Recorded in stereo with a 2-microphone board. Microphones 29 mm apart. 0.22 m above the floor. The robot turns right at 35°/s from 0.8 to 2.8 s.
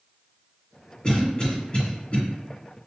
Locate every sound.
1.0 s a cough: 30° left (ahead or behind), 1.8 m; by 2.2 s 50° left (ahead or behind), 1.8 m